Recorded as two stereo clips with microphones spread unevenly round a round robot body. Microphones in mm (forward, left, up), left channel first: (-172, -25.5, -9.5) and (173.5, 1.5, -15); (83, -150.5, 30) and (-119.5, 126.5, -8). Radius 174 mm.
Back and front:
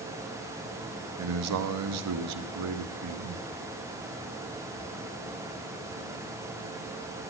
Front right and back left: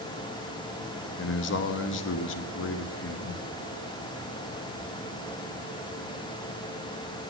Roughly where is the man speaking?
Ahead.